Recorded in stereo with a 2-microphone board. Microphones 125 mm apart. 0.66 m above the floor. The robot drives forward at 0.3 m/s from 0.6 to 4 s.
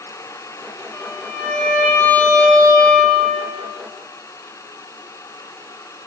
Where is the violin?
15° left (ahead or behind), 1.4 m; by 3.5 s 10° left (ahead or behind), 2 m.